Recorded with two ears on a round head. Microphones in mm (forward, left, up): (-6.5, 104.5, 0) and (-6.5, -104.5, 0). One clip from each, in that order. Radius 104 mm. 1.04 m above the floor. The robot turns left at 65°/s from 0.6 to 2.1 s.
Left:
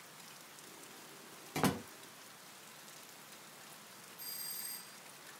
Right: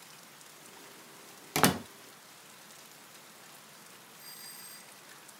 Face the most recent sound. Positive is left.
turn(degrees=30)  # may be behind; listen again after turning